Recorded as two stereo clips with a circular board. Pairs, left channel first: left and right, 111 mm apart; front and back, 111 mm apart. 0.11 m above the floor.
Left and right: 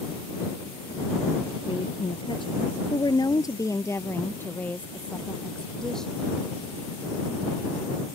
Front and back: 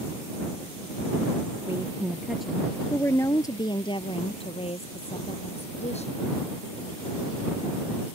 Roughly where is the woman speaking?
Behind left.